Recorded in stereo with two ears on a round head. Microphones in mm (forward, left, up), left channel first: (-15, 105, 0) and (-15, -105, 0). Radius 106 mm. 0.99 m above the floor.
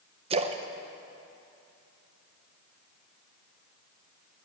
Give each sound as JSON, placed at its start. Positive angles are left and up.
{"t": 0.3, "sound": "a splash", "side_deg": -25, "distance_m": 0.6}